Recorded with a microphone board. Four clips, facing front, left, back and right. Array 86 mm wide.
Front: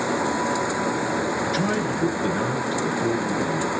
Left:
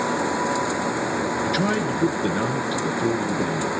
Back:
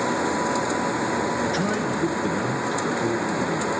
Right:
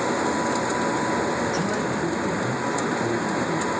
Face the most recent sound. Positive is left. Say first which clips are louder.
# left 2 dB, even
turn(degrees=75)